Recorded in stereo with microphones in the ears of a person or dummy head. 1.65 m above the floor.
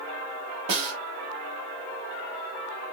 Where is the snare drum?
35° right (ahead or behind), 1.9 m.